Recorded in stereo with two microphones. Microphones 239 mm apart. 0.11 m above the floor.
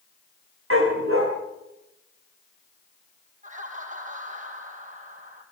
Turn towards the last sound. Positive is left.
turn(degrees=-35)  # may be behind; listen again after turning